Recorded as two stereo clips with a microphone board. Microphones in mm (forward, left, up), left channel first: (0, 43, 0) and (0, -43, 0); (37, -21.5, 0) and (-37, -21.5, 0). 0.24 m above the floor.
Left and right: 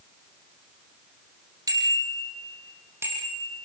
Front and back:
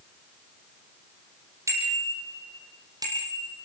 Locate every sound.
1.7 s a bicycle bell: 135° right, 6 m; by 3.5 s 155° right, 7 m